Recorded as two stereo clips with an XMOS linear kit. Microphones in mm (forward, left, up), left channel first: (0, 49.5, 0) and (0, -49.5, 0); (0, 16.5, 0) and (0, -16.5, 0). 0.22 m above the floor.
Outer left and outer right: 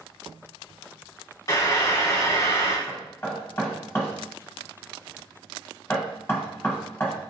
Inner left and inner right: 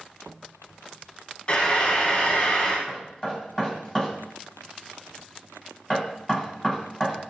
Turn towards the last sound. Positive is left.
turn(degrees=25)  # may be behind; listen again after turning